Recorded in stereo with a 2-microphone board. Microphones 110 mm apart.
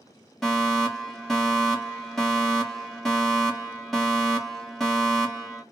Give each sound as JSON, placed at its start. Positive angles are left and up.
{"t": 0.4, "sound": "a fire alarm", "side_deg": 5, "distance_m": 2.0}